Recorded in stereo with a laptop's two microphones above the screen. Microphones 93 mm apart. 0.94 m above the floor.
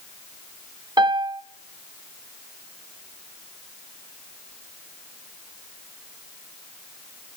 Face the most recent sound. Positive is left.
turn(degrees=-50)  # may be behind; listen again after turning